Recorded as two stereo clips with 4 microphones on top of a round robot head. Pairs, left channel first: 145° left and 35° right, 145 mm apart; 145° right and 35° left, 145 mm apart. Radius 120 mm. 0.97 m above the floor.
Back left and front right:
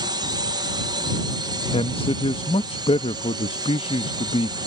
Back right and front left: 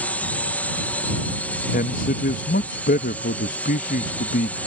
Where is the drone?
70° right.